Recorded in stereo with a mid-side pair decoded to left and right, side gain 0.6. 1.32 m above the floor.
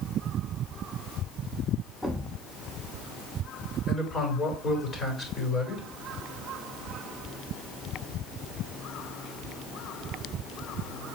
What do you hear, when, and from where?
2.0 s a thud: 10° left, 1.8 m
3.9 s a man speaking: 30° left, 5 m